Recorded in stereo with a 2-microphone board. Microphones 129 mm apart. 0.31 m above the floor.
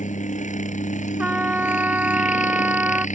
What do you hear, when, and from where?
0.0 s a helicopter: 70° left (ahead or behind)
1.2 s a trumpet: 10° right (ahead or behind)